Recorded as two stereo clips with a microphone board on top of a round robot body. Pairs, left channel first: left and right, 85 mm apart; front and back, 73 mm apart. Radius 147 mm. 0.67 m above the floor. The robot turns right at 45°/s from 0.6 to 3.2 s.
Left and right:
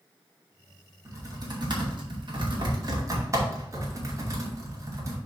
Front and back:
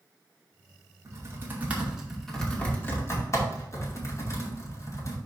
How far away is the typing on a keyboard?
About 2.5 m.